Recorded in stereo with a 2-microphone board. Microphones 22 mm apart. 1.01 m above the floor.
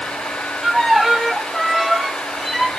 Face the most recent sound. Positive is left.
turn(degrees=-15)  # may be behind; listen again after turning